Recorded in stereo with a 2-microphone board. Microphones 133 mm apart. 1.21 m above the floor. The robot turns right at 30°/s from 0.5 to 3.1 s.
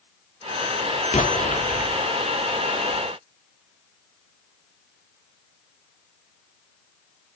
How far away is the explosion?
About 3 m.